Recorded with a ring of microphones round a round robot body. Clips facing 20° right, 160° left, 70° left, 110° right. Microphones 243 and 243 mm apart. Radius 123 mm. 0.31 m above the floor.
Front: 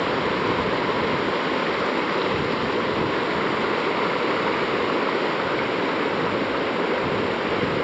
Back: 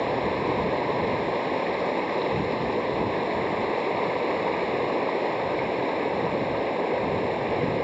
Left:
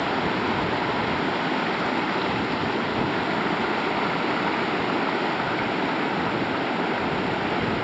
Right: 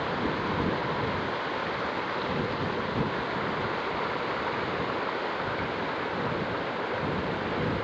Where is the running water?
45° left.